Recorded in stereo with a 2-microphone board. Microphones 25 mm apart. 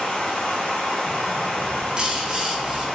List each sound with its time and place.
0.0 s running water: 85° left, 1.0 m
1.6 s a bird: 35° right (ahead or behind), 0.6 m